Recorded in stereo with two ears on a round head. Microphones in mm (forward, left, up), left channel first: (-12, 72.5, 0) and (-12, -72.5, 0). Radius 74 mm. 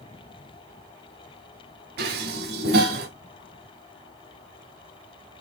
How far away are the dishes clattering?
About 2.0 m.